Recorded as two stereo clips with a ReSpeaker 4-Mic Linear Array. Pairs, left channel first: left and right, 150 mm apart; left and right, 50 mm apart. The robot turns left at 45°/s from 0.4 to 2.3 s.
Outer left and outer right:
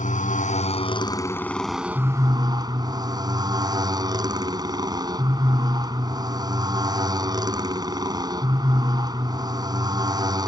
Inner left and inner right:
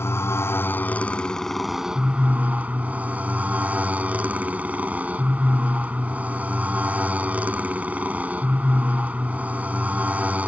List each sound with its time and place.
0.0 s a motorcycle: 60° left; by 10.5 s 25° right